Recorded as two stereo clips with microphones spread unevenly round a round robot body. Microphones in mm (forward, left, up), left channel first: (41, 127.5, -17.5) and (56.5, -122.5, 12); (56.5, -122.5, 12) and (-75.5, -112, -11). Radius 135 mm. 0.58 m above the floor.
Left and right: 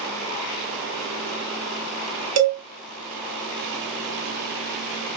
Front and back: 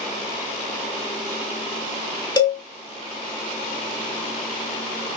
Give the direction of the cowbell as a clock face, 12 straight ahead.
2 o'clock.